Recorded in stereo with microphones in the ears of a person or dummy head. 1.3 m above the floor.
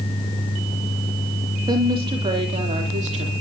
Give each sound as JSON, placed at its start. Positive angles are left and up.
{"t": 1.7, "sound": "a woman speaking", "side_deg": -20, "distance_m": 2.5}